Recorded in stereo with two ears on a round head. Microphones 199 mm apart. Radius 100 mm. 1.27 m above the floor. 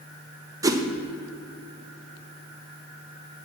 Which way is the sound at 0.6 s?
15° right (ahead or behind).